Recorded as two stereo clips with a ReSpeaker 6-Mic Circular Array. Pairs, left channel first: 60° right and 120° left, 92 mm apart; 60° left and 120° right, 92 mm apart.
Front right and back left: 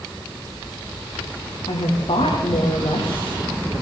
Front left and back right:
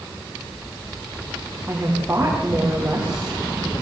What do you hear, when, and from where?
1.7 s a woman speaking: 50° right, 8 m